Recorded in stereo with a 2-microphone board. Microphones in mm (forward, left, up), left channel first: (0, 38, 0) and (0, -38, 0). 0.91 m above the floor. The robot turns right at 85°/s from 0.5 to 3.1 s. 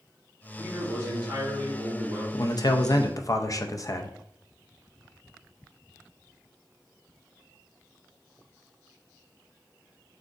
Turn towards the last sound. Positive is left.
turn(degrees=120)